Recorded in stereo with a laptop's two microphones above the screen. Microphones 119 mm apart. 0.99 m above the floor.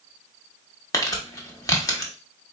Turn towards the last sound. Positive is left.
turn(degrees=30)  # may be behind; listen again after turning